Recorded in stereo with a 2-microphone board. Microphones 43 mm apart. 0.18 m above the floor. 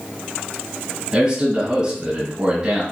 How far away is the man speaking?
About 1.5 m.